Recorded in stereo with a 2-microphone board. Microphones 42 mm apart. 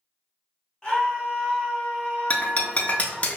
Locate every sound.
0.8 s a scream: 20° left (ahead or behind), 1.3 m; by 3.3 s 15° left (ahead or behind), 1.4 m
2.3 s breaking glass: 35° left (ahead or behind), 0.6 m